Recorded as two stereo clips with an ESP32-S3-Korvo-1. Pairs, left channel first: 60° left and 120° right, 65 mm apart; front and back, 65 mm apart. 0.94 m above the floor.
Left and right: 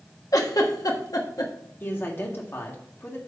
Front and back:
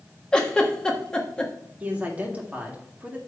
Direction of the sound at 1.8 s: 115° left.